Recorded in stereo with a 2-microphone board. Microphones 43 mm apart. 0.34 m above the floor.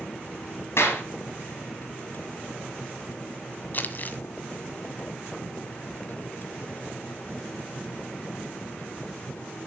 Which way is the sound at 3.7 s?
45° left (ahead or behind).